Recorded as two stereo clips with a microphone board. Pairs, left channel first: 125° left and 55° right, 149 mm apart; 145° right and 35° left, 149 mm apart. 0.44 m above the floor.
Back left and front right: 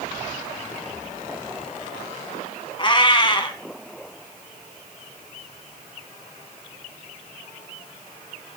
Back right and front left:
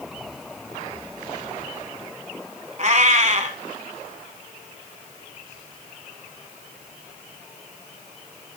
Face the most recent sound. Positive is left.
turn(degrees=70)